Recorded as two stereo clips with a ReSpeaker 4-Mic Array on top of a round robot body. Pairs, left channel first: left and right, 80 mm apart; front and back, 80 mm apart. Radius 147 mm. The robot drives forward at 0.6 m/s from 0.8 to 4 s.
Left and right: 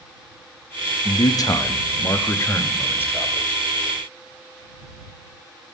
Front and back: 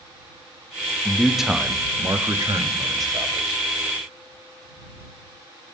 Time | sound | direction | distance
1.1 | a man speaking | 75° left | 0.8 m